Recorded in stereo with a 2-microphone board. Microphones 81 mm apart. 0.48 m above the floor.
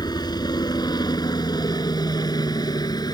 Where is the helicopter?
60° left (ahead or behind); by 3.1 s 55° left (ahead or behind).